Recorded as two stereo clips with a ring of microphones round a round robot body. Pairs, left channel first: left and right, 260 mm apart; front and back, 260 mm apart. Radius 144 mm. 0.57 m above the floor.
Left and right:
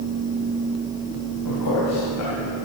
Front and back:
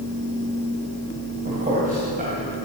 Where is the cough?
I don't hear a cough.